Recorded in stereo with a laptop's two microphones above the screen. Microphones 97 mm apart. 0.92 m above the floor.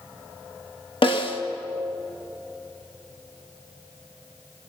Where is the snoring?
No snoring in this recording.